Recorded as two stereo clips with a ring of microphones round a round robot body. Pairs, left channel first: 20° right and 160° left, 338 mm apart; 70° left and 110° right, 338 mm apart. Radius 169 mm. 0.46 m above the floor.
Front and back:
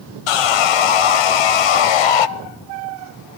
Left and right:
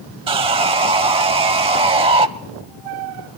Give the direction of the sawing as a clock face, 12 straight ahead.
1 o'clock.